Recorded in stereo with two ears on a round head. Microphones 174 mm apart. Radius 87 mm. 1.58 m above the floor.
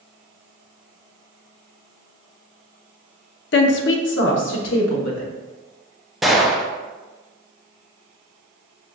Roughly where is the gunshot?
Centre.